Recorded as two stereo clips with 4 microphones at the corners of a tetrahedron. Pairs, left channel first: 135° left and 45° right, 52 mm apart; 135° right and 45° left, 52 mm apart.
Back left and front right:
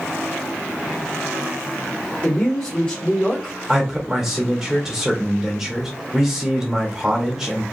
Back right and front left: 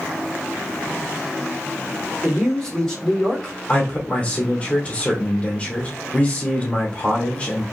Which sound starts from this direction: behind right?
A man speaking, at 3.7 s.